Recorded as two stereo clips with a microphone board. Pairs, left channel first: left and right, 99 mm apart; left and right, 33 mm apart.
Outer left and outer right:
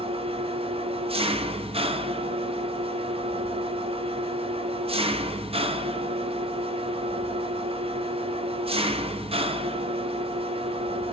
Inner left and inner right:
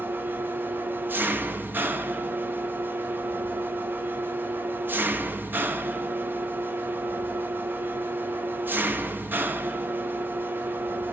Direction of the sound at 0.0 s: 75° right (ahead or behind).